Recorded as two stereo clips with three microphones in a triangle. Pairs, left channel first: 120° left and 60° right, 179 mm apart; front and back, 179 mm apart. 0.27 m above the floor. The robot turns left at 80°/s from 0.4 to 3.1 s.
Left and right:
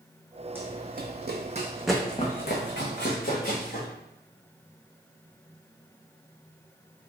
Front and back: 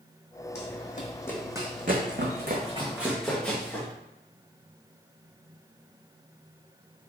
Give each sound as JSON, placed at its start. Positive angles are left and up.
{"t": 0.6, "sound": "running footsteps", "azimuth_deg": 15, "distance_m": 0.8}